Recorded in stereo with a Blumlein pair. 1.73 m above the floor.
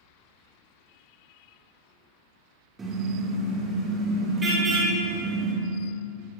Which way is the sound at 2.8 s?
15° right.